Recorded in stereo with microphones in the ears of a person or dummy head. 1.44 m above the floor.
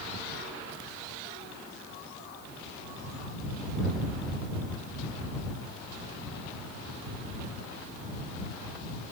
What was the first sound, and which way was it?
Only background noise.